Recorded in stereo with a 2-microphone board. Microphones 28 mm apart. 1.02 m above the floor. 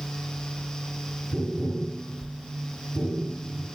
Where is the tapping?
60° right (ahead or behind), 1.7 m.